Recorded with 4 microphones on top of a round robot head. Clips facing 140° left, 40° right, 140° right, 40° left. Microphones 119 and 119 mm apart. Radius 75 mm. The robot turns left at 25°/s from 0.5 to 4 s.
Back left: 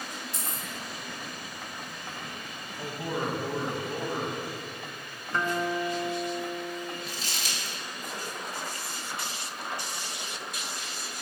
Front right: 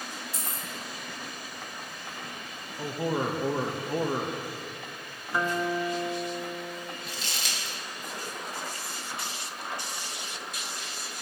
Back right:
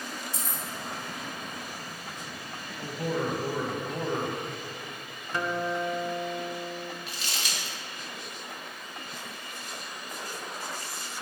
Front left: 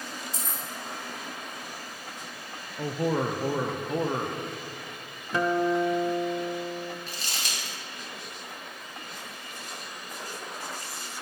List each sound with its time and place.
0.3 s keys jangling: 45° left, 1.9 m; by 0.6 s 40° left, 1.9 m
2.8 s a man speaking: 20° left, 0.6 m; by 4.4 s 10° right, 0.6 m
5.3 s a guitar: 40° left, 0.5 m
7.1 s crumpling: 10° right, 2 m